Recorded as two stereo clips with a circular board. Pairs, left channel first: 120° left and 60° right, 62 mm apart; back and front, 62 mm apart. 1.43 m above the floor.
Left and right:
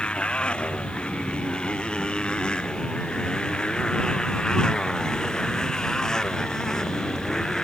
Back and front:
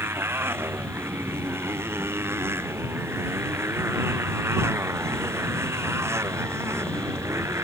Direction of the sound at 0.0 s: 45° left.